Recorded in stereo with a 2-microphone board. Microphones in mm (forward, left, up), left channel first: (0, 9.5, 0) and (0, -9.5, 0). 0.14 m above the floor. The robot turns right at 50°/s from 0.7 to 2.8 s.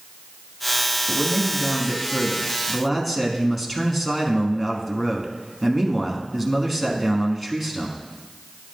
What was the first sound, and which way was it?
A man speaking, 20° right (ahead or behind).